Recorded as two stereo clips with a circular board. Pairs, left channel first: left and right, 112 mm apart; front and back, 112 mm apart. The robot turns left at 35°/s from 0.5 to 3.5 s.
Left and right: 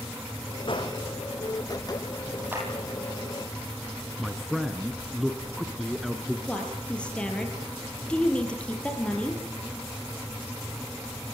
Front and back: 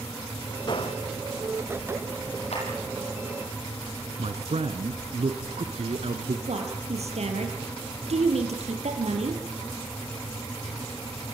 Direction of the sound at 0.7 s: 50° left.